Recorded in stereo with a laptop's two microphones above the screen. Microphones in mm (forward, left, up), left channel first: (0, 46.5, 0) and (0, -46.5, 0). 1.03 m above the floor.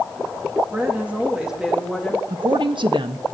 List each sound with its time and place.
0.7 s a woman speaking: 20° right (ahead or behind), 1.6 m; by 2.2 s 5° left (ahead or behind), 1.6 m
2.3 s a woman speaking: 60° right (ahead or behind), 1.0 m